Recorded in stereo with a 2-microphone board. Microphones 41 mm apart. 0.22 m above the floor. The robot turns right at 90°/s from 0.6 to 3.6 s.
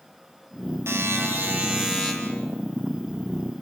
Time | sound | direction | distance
0.9 | a buzzer | 95° right | 4.5 m